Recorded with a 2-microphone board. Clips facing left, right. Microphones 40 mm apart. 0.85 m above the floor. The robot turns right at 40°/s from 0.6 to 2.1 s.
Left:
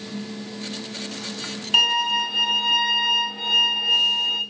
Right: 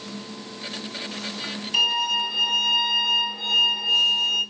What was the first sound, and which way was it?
A violin, 45° left (ahead or behind).